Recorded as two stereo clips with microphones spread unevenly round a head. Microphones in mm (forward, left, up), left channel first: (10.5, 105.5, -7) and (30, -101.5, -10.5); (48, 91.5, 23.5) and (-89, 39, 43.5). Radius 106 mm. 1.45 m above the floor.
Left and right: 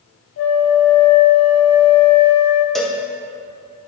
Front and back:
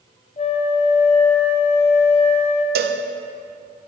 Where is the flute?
70° left, 0.8 m.